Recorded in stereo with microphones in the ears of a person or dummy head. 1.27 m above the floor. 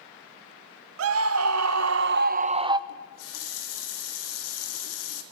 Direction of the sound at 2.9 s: 80° left.